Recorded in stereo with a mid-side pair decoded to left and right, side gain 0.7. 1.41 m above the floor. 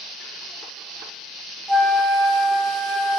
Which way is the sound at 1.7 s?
5° right.